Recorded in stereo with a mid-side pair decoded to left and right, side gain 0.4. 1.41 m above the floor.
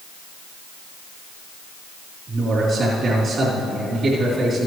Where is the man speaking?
55° right, 3.5 m.